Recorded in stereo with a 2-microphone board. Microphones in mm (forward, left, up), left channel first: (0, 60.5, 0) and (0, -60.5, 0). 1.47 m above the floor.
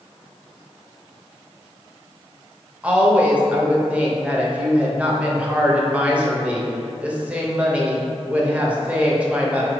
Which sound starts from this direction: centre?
A woman speaking, at 2.8 s.